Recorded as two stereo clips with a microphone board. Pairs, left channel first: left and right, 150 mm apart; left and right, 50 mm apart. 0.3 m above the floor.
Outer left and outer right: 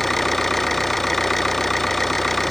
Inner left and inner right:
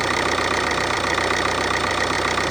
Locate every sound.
0.0 s an engine running: centre (ahead or behind)